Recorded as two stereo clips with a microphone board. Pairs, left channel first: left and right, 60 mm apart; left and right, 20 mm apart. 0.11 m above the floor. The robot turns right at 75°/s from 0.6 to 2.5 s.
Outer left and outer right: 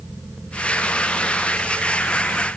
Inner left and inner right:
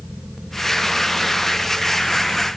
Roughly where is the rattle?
No rattle in this recording.